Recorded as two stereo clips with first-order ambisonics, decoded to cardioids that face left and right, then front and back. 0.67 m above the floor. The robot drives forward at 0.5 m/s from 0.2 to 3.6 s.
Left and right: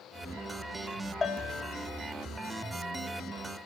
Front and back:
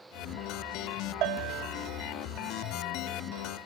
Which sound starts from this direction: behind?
A bell, at 1.2 s.